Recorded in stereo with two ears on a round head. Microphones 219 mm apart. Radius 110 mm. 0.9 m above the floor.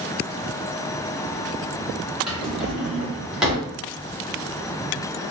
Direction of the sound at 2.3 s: Centre (ahead or behind).